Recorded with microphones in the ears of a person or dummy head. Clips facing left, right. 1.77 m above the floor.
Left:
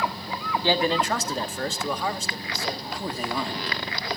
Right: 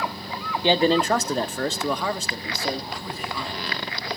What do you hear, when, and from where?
0.6 s a man speaking: 15° right (ahead or behind), 0.6 m; by 2.8 s 70° right (ahead or behind), 1.7 m
2.9 s a man speaking: 35° left (ahead or behind), 2.5 m